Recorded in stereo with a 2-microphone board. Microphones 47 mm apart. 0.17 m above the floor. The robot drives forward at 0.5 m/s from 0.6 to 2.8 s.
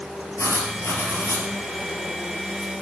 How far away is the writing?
About 3.5 m.